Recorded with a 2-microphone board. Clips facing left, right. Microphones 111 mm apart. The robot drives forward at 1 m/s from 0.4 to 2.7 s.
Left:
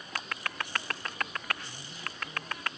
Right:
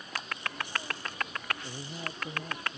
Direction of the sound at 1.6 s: 65° right (ahead or behind).